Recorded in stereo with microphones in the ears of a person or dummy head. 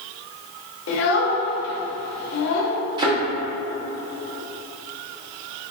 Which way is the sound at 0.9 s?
70° left (ahead or behind).